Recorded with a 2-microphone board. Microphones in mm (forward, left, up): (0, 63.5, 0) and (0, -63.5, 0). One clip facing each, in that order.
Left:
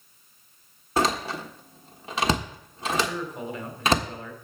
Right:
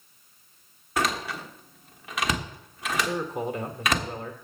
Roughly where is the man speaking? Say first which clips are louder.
Right 4 dB; right.